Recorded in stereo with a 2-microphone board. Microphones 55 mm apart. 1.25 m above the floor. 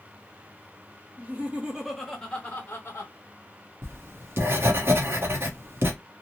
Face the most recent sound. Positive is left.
turn(degrees=-45)  # may be behind; listen again after turning